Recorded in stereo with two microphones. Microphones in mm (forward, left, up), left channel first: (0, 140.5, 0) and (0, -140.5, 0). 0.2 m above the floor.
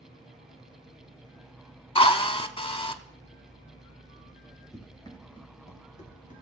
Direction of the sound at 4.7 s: 10° left (ahead or behind).